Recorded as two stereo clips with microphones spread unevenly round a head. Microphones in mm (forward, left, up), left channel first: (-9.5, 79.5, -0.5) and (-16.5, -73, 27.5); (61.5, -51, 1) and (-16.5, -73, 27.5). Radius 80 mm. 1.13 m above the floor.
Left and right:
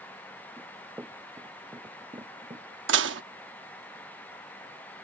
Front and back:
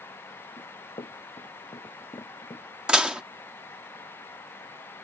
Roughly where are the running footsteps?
Ahead.